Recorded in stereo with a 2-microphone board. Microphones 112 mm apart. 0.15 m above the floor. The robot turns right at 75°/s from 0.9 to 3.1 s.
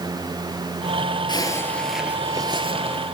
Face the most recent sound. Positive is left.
turn(degrees=-90)